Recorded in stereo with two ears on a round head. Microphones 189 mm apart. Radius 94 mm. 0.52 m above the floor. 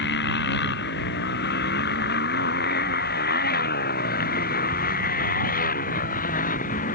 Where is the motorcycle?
55° left (ahead or behind); by 7.0 s 40° left (ahead or behind).